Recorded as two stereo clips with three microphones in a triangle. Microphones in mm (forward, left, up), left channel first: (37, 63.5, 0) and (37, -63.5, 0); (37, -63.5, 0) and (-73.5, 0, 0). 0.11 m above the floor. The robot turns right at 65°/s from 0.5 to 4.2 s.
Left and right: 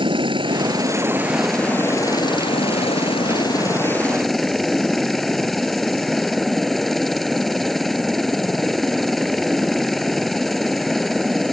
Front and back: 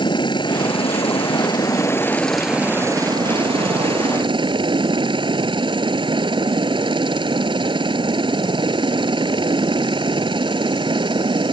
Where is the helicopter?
60° right; by 11.5 s straight behind.